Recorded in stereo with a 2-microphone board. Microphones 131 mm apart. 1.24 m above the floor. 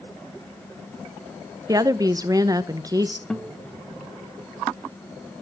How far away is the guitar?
About 1.5 m.